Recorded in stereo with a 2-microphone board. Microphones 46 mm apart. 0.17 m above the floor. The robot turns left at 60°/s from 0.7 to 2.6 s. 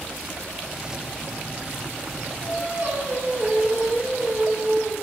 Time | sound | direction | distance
2.4 | singing | 45° right (ahead or behind) | 0.9 m